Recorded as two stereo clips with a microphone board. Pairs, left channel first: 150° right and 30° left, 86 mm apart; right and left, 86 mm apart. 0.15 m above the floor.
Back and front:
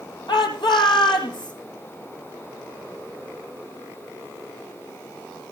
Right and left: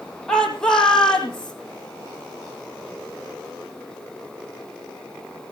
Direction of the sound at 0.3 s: 175° right.